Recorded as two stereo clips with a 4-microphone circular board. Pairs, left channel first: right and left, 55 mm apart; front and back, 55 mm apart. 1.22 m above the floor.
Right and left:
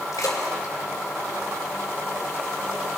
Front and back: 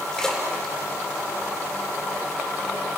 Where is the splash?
80° right, 4 m.